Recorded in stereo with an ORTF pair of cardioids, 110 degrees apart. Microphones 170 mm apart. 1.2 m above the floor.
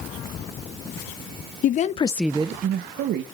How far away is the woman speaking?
About 1.0 m.